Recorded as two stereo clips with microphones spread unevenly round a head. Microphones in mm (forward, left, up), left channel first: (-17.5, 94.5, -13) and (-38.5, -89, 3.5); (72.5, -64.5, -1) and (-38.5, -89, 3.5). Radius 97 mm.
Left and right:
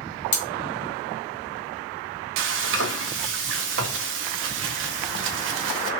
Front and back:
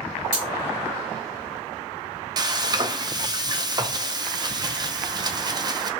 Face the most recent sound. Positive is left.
turn(degrees=-115)